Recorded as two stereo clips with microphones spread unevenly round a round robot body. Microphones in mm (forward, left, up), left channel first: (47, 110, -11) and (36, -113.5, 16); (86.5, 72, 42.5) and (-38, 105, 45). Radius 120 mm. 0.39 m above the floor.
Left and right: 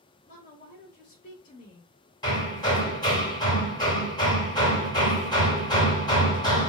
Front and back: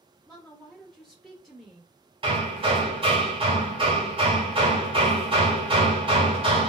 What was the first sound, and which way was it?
A woman speaking, 70° left.